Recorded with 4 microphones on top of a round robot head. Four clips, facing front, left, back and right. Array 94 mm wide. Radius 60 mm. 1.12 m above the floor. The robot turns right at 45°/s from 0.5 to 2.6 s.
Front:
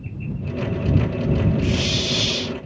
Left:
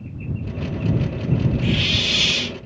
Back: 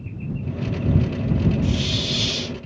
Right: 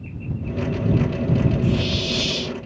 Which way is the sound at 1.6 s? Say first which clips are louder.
Right 1 dB, front 2 dB; 60° left.